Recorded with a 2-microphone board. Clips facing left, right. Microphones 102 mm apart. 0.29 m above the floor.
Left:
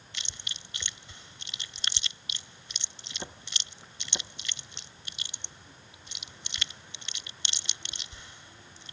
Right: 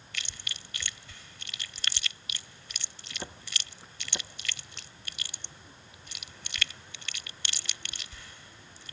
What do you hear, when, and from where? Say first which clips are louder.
0.1 s chewing: right 3 dB; 25° left (ahead or behind)